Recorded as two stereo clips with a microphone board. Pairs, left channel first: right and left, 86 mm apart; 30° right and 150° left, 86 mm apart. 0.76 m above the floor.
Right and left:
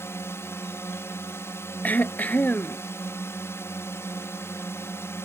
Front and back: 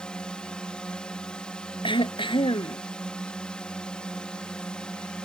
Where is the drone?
100° right.